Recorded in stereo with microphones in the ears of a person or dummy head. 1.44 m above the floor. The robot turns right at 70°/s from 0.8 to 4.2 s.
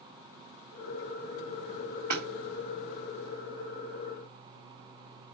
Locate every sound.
2.1 s hammering: 50° right (ahead or behind), 3 m; by 2.2 s 60° right (ahead or behind), 3 m